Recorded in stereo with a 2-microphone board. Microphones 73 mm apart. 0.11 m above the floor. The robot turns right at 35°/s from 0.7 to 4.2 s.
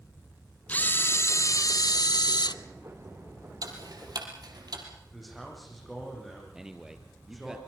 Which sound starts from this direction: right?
Ticking, at 3.6 s.